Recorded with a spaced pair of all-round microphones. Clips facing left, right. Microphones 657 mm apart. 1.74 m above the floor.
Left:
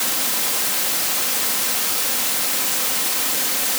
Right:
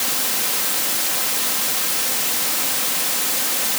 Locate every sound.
Only background noise.